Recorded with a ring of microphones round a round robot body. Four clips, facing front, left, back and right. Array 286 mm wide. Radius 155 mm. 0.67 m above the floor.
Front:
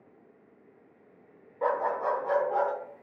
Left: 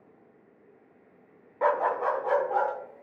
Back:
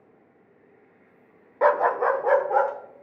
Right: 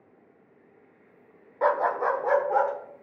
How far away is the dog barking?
About 0.5 m.